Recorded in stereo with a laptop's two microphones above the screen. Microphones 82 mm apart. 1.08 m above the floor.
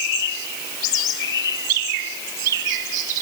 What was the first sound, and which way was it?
Only background noise.